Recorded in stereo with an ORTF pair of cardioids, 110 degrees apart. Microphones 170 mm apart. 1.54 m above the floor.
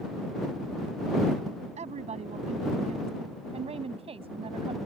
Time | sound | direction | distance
1.8 | a woman speaking | 40° right | ?